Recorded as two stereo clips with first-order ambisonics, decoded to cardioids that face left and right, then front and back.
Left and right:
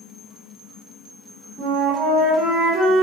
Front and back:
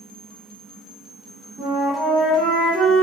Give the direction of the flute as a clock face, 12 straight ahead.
4 o'clock.